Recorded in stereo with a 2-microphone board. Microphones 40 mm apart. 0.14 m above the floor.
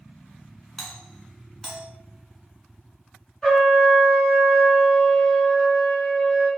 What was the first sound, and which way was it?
A doorbell, 10° left (ahead or behind).